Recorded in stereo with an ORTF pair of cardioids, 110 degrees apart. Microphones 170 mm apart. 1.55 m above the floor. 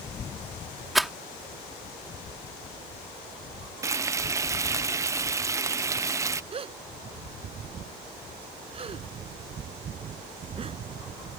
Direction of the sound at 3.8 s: 15° right.